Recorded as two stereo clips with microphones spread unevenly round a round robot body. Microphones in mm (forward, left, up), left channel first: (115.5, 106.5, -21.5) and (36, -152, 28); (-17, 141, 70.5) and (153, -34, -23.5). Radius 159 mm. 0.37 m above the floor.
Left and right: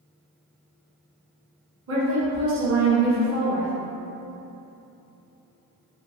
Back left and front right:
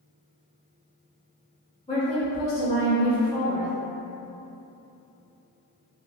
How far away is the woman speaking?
About 1.2 m.